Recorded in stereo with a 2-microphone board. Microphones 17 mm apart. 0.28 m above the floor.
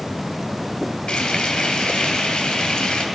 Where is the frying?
80° left, 3 m.